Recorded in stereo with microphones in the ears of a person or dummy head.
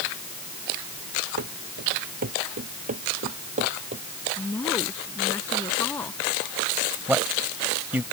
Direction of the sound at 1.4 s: 55° right (ahead or behind).